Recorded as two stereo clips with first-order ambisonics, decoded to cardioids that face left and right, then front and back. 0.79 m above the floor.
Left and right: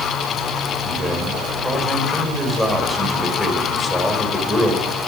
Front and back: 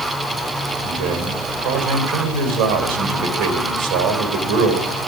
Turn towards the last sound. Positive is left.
turn(degrees=175)